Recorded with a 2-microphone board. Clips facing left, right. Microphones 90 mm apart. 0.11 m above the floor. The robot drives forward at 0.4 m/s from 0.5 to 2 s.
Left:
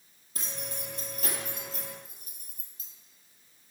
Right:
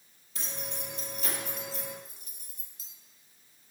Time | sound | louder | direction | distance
0.3 | keys jangling | even | 45° left (ahead or behind) | 2 m